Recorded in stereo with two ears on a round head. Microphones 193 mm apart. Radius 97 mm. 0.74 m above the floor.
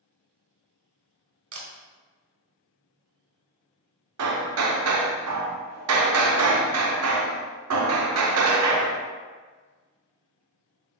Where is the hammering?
85° right, 0.5 m.